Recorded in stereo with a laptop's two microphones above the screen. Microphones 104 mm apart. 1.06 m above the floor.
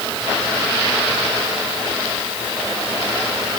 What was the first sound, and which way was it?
Only background noise.